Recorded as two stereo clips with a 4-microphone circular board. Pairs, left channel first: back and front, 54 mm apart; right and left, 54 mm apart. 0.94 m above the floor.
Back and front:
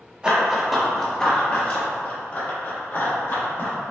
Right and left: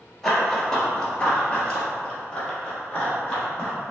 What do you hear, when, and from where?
0.2 s running footsteps: 15° right, 0.9 m; by 3.8 s 155° right, 2.0 m